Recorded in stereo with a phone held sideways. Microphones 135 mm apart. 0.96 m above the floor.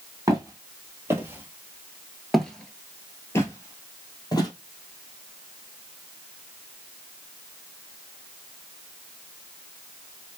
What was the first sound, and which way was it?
Footsteps, 25° right (ahead or behind).